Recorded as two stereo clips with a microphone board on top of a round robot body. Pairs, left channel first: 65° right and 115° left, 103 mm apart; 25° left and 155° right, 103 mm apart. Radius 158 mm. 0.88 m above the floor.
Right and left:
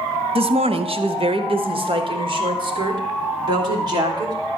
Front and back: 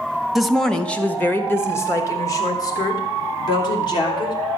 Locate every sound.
0.3 s a woman speaking: 115° left, 1.2 m; by 4.3 s 65° left, 3 m